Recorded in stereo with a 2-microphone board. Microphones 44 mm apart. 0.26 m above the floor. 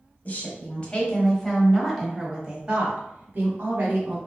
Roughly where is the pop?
I don't hear a pop.